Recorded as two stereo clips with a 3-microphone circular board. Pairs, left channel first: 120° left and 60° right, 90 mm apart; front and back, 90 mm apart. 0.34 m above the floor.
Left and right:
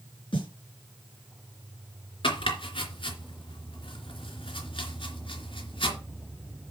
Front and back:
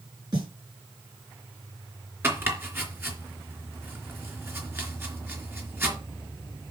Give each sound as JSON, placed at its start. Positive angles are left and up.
{"t": 0.3, "sound": "a snare drum", "azimuth_deg": 140, "distance_m": 5.5}
{"t": 2.2, "sound": "chopping", "azimuth_deg": 115, "distance_m": 3.0}